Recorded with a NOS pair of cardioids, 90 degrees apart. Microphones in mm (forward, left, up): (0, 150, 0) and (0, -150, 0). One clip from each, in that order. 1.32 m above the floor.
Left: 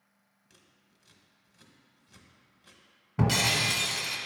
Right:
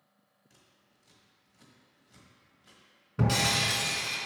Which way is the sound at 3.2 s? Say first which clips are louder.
Left 1 dB; 20° left.